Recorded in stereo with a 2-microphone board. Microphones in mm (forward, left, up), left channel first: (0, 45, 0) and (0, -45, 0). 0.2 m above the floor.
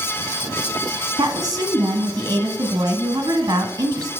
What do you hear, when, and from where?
1.2 s a woman speaking: 40° right (ahead or behind), 1.4 m